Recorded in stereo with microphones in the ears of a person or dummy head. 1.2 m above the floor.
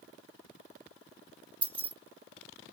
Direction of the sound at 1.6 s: 15° left (ahead or behind).